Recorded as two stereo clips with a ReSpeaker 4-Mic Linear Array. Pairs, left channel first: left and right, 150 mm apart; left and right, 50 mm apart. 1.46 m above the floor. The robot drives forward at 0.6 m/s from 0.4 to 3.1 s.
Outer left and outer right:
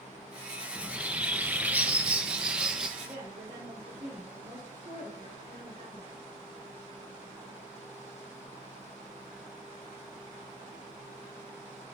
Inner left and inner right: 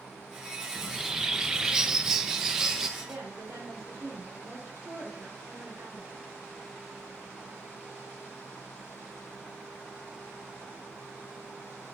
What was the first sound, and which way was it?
A bird, 5° right (ahead or behind).